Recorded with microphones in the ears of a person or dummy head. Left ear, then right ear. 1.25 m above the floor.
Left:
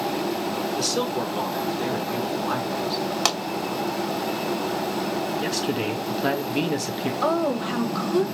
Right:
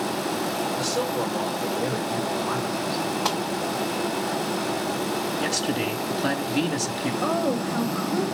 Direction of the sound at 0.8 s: 45° left (ahead or behind).